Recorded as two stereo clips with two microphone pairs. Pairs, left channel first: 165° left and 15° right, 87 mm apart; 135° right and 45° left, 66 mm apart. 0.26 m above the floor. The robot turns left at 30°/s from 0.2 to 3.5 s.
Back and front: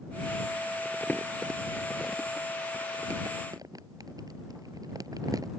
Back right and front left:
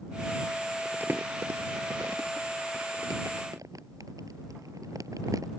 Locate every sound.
0.8 s crumpling: 105° left; by 5.5 s 25° left